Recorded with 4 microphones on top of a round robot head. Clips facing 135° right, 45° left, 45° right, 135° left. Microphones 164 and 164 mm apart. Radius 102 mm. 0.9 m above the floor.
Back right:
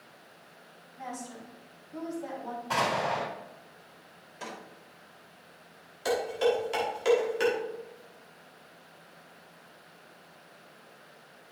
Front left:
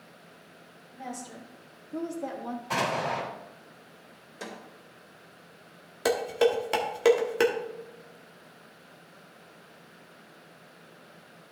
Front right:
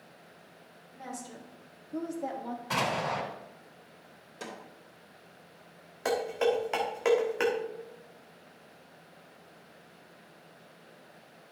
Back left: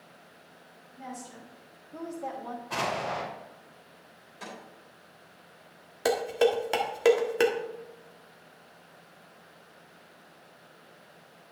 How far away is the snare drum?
About 3 m.